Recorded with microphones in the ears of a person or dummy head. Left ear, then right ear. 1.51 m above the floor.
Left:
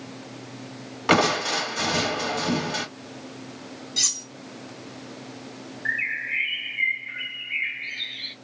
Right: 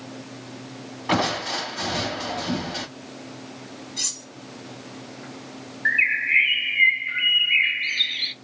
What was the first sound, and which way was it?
Crushing, 70° left (ahead or behind).